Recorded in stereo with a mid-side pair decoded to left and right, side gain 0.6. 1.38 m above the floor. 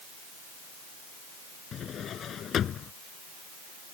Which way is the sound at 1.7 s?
45° left.